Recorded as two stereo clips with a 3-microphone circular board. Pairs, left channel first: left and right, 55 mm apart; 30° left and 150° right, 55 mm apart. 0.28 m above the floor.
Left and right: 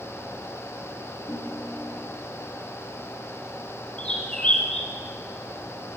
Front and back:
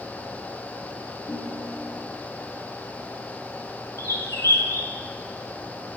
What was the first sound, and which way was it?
A ringtone, 65° left.